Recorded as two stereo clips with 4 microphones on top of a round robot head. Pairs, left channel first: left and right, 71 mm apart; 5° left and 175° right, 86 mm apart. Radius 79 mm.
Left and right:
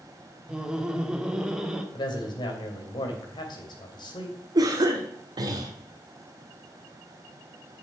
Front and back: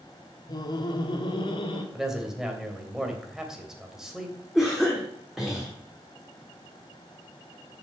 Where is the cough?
90° right, 1.4 m.